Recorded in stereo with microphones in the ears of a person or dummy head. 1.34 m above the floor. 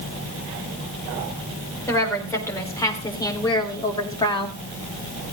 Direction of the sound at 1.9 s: 15° left (ahead or behind).